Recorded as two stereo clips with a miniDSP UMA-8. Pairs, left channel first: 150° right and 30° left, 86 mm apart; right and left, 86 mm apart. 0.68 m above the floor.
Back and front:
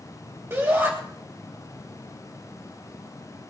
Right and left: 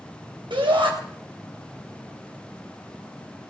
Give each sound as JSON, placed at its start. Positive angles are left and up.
{"t": 0.5, "sound": "a shout", "azimuth_deg": 85, "distance_m": 3.0}